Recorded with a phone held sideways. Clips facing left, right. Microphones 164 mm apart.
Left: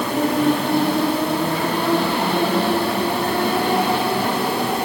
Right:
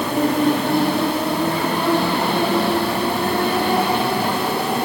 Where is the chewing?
No chewing in this recording.